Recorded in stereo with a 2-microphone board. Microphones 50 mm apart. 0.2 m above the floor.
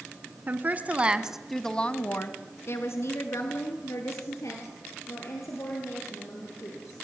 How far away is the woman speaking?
About 1.8 m.